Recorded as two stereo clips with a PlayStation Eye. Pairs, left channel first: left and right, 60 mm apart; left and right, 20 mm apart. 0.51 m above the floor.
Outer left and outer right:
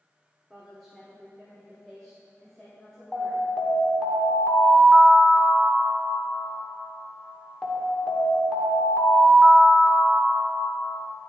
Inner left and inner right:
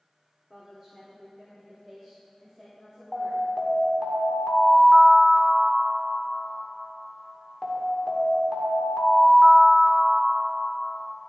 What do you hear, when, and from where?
0.5 s a woman speaking: 10° right (ahead or behind), 1.5 m; by 3.4 s 15° left (ahead or behind), 3 m
3.1 s an alarm: 10° left (ahead or behind), 1.7 m